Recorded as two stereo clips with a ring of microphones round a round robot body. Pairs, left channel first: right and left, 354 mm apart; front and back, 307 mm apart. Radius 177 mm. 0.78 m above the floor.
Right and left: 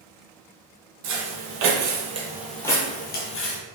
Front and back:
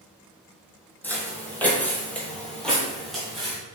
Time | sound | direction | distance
1.0 | footsteps | 85° left | 1.1 m